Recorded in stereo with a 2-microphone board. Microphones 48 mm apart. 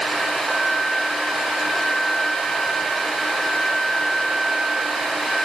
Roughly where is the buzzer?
I don't hear a buzzer.